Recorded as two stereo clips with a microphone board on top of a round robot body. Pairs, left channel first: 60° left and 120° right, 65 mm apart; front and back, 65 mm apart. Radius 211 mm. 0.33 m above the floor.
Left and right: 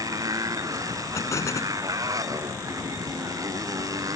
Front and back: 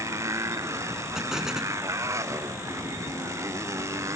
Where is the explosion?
100° left.